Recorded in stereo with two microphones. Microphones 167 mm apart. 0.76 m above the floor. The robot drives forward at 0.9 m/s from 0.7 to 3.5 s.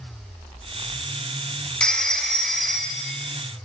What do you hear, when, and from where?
1.8 s a phone ringing: 5° left (ahead or behind), 0.5 m; by 3.2 s centre (ahead or behind), 1.7 m